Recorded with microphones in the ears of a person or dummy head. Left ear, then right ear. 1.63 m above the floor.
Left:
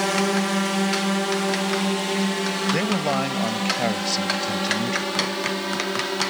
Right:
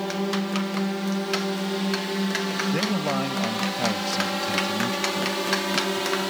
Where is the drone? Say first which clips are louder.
Left 6 dB; 50° left (ahead or behind); by 6.3 s 10° right (ahead or behind).